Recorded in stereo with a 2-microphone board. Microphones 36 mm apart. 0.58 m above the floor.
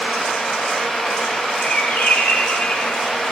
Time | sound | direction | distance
1.6 | a bird | 35° left (ahead or behind) | 7.5 m